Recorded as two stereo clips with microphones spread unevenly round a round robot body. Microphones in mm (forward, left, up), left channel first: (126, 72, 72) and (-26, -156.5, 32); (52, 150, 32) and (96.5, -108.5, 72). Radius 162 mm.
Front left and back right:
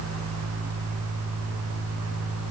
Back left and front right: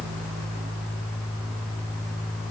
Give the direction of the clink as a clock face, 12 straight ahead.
No clink in this recording.